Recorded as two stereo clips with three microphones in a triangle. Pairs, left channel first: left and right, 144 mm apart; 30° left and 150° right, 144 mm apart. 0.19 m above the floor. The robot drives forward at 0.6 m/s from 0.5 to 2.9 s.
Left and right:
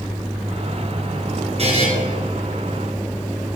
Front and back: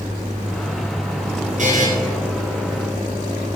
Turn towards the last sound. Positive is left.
turn(degrees=-145)